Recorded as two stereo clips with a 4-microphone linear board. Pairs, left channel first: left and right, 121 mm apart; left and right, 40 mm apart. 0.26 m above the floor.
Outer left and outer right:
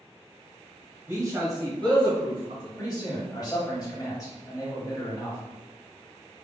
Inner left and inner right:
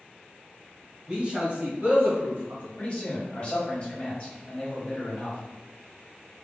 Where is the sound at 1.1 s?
20° right (ahead or behind), 1.0 m; by 2.7 s 55° right (ahead or behind), 1.6 m.